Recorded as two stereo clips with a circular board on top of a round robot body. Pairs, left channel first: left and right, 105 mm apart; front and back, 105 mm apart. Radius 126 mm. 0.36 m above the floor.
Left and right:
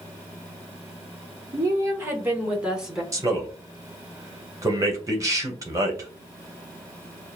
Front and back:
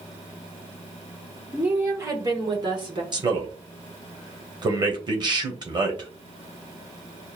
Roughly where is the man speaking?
Behind right.